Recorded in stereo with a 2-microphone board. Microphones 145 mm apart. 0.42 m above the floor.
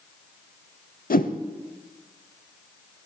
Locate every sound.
1.1 s a whoosh: 80° left, 0.6 m